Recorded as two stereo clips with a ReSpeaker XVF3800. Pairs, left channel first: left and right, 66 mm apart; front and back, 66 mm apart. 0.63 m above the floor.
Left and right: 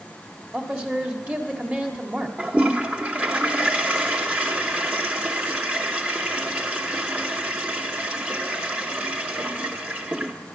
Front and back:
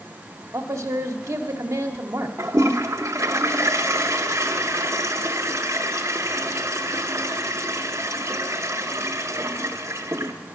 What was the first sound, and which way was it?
A man speaking, 150° right.